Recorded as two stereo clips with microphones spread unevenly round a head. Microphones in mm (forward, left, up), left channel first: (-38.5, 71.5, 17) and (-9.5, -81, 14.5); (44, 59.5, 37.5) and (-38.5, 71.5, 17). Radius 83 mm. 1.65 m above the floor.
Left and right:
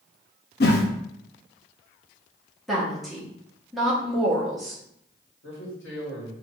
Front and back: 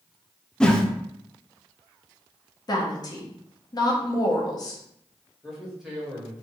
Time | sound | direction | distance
0.6 | a whoosh | 70° left | 0.6 m
2.7 | a woman speaking | 10° left | 1.1 m
5.4 | a man speaking | 85° left | 1.8 m